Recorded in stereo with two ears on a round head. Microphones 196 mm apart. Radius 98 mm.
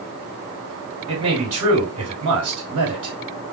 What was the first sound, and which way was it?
A man speaking, 20° right (ahead or behind).